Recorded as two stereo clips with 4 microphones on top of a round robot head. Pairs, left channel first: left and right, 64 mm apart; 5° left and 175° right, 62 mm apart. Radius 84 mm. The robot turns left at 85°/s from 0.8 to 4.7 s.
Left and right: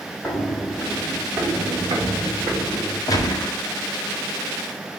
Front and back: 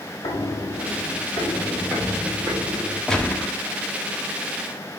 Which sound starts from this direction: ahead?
Footsteps, at 0.2 s.